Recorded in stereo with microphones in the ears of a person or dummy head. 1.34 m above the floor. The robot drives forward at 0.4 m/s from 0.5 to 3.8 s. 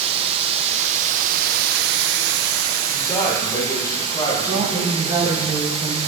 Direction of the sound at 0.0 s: 35° right (ahead or behind).